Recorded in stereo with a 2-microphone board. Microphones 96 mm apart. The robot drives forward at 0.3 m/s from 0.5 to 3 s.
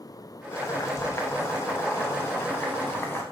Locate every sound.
0.5 s boiling: 30° left (ahead or behind), 1.5 m; by 3.2 s 20° left (ahead or behind), 2 m